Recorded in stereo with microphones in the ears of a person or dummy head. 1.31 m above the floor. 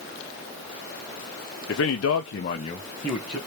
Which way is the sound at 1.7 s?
70° left (ahead or behind).